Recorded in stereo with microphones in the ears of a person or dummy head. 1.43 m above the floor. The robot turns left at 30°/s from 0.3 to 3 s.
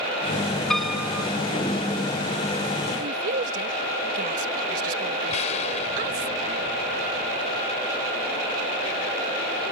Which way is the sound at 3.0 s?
45° right (ahead or behind).